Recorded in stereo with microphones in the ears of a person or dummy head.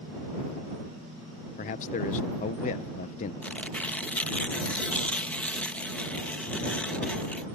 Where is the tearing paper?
10° left (ahead or behind).